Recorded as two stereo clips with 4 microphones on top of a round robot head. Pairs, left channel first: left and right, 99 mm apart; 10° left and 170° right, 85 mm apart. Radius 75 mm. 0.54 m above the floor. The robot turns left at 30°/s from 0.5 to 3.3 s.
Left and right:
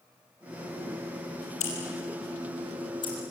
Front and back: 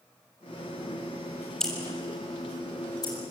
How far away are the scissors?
About 6.5 m.